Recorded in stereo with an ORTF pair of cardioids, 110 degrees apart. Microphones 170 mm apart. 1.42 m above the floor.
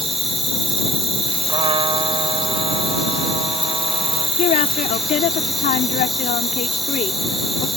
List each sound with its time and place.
0.0 s an insect: straight ahead
1.5 s a trumpet: 30° right
4.4 s a woman speaking: 50° left